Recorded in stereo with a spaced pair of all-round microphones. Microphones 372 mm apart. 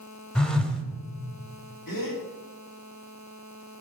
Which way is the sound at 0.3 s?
Centre (ahead or behind).